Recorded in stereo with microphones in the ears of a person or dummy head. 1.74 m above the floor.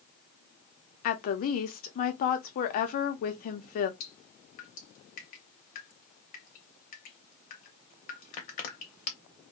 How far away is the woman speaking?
About 0.6 m.